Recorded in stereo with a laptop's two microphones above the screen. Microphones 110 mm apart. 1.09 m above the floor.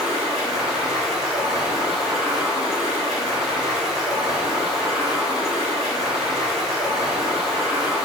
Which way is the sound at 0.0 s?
5° right (ahead or behind).